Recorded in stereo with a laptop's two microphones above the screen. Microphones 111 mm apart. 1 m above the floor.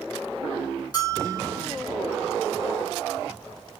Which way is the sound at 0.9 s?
35° left (ahead or behind).